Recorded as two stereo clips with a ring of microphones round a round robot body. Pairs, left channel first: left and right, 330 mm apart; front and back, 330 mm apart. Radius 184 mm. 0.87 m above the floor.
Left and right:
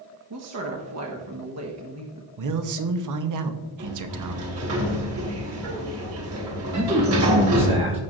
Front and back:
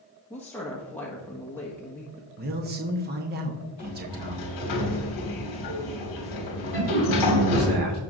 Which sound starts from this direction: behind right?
A man speaking, at 2.4 s.